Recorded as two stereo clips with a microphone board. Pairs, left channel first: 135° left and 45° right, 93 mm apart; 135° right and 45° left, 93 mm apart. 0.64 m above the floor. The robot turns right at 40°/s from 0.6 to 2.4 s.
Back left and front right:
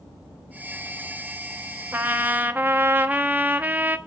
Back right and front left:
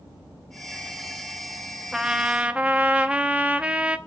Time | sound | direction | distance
1.9 | a trumpet | 30° right | 1.0 m